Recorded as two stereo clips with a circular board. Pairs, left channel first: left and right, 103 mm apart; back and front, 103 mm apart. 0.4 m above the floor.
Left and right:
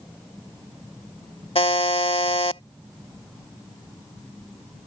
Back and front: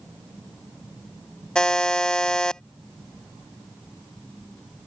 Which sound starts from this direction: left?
A buzzer, at 1.6 s.